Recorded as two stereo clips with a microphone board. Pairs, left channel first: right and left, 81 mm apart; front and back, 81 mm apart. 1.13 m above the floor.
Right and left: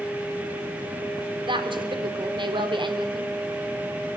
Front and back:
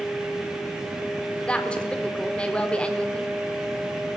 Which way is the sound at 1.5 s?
75° left.